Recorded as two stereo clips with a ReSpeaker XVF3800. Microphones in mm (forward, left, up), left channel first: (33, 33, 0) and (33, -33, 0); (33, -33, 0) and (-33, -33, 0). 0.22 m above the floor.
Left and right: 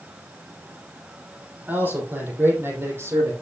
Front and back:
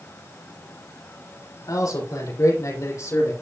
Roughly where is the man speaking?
Ahead right.